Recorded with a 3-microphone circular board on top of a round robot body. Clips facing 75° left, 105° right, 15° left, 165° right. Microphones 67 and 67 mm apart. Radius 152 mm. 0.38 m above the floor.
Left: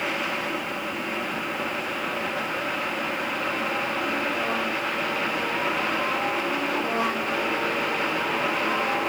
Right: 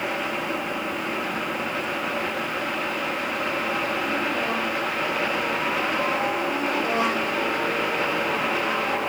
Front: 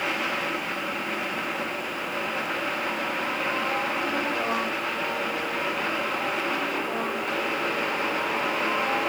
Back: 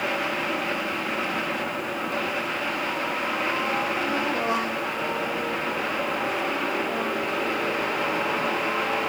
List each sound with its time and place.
Only background noise.